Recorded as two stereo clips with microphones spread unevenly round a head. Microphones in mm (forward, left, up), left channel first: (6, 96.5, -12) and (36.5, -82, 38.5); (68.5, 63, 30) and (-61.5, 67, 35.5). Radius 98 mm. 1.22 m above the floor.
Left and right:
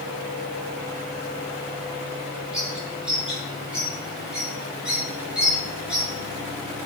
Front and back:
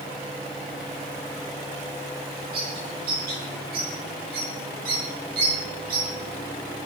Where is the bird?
165° right, 8 m.